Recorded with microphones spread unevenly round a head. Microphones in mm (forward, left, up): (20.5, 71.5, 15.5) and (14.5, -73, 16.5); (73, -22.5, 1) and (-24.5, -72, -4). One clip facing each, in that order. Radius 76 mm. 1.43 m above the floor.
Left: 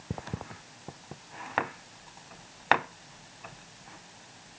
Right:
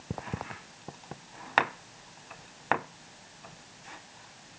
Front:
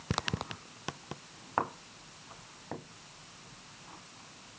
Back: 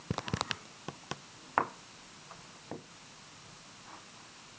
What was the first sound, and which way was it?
Only background noise.